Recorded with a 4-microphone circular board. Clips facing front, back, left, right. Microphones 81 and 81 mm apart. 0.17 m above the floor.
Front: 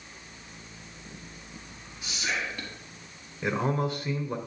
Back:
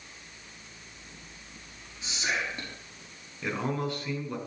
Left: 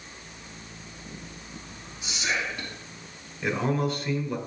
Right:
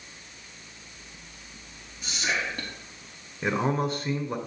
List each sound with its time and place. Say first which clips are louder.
2.0 s whispering: back 1 dB, even; 120° right, 3.5 m
3.4 s a man speaking: front 3 dB, even; 60° right, 1.6 m